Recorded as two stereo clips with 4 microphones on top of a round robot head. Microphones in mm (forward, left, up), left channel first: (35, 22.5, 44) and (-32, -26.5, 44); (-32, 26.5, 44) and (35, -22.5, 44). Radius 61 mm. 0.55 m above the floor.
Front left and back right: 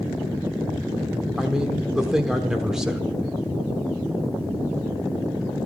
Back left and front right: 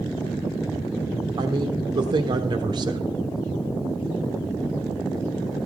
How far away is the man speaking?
About 1.2 m.